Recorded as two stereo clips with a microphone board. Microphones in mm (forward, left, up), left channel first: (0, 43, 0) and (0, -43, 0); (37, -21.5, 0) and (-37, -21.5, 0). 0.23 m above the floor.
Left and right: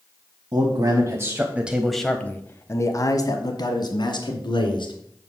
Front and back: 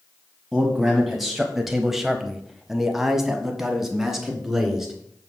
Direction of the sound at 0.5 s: 90° right.